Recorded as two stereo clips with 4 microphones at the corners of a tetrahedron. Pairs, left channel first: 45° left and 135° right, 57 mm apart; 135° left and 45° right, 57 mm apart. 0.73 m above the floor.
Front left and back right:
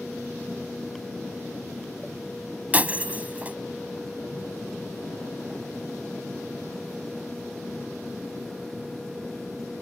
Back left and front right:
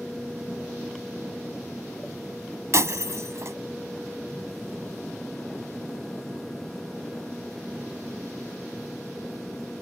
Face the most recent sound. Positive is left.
turn(degrees=-75)